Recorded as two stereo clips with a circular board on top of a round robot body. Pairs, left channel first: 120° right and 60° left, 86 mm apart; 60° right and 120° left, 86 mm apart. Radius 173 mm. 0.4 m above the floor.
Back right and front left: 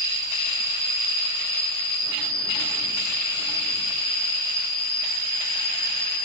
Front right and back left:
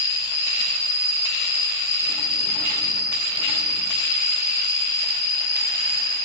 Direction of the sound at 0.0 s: 60° right.